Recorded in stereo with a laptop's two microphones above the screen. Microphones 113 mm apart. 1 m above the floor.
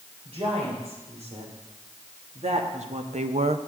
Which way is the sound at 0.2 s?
60° right (ahead or behind).